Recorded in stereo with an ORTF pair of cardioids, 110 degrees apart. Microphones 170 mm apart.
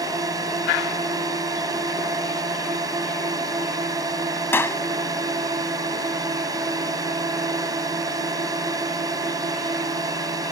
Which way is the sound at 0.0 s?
20° right.